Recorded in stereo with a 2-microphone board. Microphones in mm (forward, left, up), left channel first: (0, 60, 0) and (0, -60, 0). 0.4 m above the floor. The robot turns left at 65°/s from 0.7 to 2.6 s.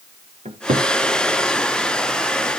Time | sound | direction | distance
0.5 | a cupboard door | 80° right | 1.7 m